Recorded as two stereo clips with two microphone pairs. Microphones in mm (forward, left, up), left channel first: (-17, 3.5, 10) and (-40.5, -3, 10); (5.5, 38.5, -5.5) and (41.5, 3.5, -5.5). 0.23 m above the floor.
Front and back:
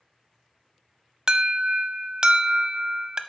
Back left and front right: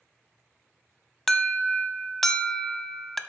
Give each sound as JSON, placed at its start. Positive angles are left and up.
{"t": 1.3, "sound": "an alarm", "azimuth_deg": -140, "distance_m": 0.8}